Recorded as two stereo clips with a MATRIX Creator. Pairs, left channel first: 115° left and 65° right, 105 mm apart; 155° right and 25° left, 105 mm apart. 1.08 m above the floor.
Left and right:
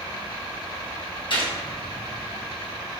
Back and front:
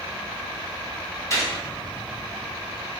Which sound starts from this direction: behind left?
A gunshot, at 1.3 s.